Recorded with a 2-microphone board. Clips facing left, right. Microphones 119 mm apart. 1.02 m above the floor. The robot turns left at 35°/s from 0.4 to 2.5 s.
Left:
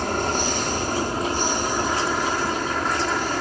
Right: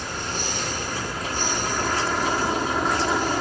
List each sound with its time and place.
0.0 s an aircraft: 65° left; by 3.4 s 10° right